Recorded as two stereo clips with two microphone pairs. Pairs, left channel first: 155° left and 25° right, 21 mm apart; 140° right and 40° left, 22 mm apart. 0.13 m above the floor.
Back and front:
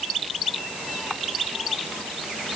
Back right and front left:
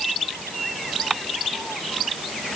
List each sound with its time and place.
Only background noise.